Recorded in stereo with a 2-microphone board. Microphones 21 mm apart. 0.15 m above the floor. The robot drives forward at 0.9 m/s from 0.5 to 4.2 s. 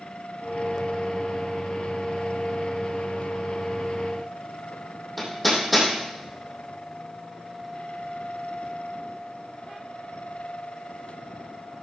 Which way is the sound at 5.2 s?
Centre (ahead or behind).